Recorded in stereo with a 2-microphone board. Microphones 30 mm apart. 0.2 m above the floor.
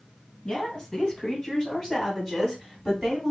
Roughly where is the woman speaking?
Left.